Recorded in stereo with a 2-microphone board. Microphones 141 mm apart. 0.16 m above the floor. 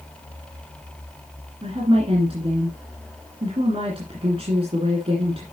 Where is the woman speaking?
45° right (ahead or behind), 2.5 m.